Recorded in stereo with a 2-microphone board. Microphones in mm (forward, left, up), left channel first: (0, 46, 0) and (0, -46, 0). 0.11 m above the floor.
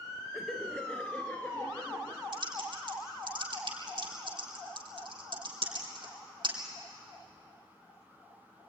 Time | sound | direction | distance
0.3 | laughter | centre (ahead or behind) | 1.3 m
2.3 | typing on a keyboard | 50° right (ahead or behind) | 3.5 m